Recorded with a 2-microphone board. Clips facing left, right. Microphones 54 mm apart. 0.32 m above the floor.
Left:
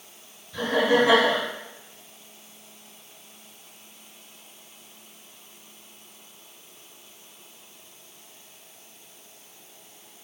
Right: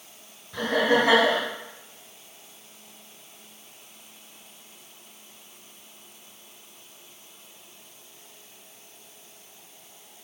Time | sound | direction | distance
0.5 | laughter | 40° right (ahead or behind) | 1.8 m